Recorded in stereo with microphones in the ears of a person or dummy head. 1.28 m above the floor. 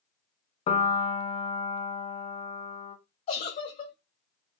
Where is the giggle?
45° left (ahead or behind), 1.4 m.